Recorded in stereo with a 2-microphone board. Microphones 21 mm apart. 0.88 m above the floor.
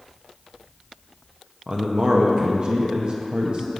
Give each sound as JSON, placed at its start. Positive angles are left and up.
{"t": 1.7, "sound": "a man speaking", "side_deg": -40, "distance_m": 0.6}